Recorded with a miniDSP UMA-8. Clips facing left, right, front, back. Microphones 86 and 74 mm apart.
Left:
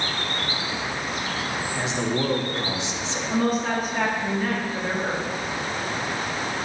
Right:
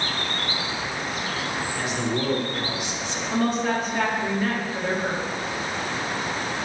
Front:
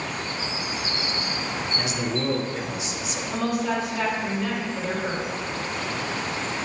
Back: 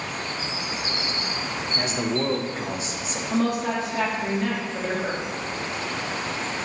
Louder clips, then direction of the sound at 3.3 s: Even, back 2 dB; 175° left.